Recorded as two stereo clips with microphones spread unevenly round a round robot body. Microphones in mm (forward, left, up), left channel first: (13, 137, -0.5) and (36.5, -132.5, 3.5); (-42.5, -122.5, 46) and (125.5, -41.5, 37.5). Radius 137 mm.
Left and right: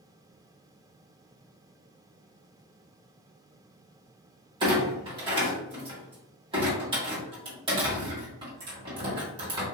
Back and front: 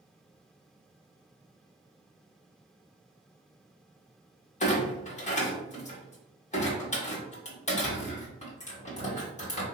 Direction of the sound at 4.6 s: 145° right.